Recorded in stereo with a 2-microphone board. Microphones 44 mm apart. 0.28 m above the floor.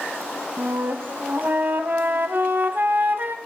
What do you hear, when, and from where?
0.6 s a flute: 45° right (ahead or behind), 1.0 m